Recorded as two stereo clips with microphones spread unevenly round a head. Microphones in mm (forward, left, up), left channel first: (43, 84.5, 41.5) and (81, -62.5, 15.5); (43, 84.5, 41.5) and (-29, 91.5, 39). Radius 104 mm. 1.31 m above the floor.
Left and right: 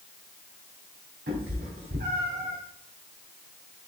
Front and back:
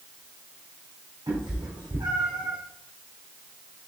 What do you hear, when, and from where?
1.3 s a cat meowing: 115° right, 3.5 m